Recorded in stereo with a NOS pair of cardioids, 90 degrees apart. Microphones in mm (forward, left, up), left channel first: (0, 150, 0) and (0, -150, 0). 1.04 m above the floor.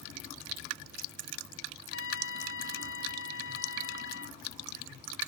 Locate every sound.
1.9 s a trumpet: 45° left